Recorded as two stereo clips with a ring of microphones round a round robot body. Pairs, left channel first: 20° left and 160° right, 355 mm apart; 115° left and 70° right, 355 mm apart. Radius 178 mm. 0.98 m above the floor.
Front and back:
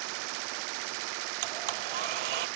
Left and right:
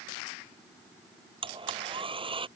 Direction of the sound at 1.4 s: 145° right.